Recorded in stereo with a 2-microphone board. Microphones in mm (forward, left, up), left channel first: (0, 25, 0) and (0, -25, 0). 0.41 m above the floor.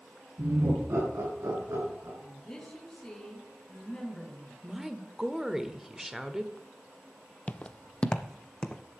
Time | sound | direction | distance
0.4 | laughter | 80° right | 6.5 m
2.2 | a woman speaking | 10° left (ahead or behind) | 4.5 m
4.6 | a woman speaking | 10° right (ahead or behind) | 1.1 m
7.5 | footsteps | 30° left (ahead or behind) | 0.5 m